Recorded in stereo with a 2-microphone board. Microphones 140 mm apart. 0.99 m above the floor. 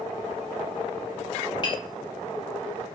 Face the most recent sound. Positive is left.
turn(degrees=35)  # may be behind; listen again after turning